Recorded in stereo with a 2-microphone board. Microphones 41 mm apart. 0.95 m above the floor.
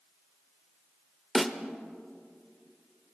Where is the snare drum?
Centre (ahead or behind), 0.9 m.